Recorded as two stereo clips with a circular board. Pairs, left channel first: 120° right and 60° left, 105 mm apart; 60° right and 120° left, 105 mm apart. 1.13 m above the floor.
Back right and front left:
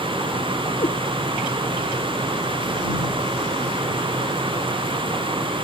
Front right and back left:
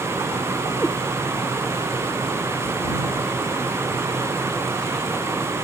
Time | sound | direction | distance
0.8 | a cat meowing | 140° right | ?